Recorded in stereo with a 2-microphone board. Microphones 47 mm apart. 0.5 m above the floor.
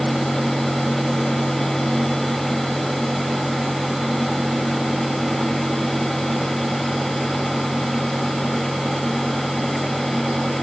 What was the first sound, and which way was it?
Only background noise.